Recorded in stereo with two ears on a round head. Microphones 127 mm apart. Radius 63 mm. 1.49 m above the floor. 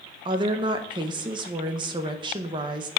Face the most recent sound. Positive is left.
turn(degrees=-35)  # may be behind; listen again after turning